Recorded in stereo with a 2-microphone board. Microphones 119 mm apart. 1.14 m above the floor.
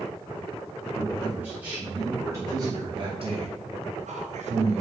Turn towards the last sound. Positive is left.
turn(degrees=-65)  # may be behind; listen again after turning